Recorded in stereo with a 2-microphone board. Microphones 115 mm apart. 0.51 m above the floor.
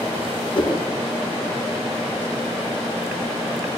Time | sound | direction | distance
0.6 | a whoosh | 45° left (ahead or behind) | 1.1 m